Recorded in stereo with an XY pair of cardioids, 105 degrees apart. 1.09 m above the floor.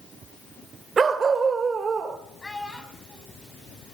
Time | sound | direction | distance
1.0 | a dog barking | 40° right | 1.8 m
2.4 | a child speaking | 15° left | 5.5 m